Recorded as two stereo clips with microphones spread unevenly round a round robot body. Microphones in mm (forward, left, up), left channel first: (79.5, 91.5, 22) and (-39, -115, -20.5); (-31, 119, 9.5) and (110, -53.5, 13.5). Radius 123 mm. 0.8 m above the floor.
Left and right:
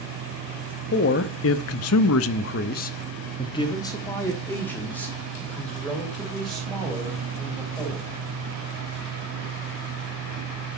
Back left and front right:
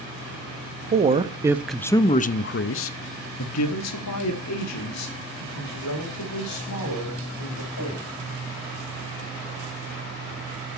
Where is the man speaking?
10° left, 0.9 m; by 8.1 s 155° left, 3.5 m.